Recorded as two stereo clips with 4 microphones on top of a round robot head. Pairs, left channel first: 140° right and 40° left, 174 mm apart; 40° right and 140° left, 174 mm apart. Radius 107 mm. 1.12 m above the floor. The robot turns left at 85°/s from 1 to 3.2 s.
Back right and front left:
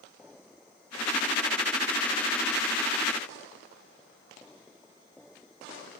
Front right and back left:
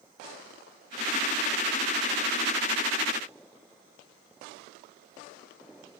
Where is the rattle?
No rattle in this recording.